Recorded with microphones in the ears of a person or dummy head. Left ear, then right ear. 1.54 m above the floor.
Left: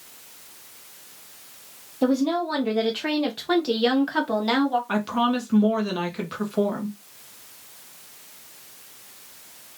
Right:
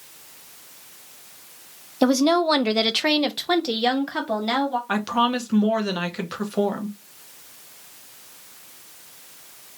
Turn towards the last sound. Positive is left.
turn(degrees=-20)  # may be behind; listen again after turning